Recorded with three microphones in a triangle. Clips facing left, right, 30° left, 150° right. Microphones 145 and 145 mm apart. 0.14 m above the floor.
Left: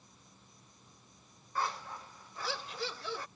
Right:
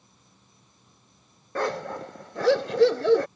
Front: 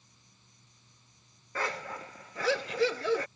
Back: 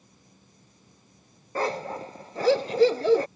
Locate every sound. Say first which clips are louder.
0.0 s an insect: right 1 dB, back 9 dB; 175° right
1.6 s a dog barking: right 10 dB, back 8 dB; 95° right